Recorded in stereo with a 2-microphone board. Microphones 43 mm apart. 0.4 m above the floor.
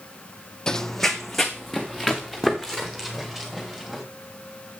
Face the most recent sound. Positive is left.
turn(degrees=-5)  # may be behind; listen again after turning